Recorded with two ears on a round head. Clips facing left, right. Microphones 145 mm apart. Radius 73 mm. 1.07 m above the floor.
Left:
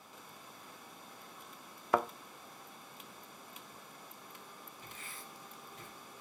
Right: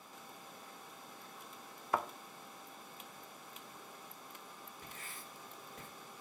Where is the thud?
55° left (ahead or behind), 0.5 m.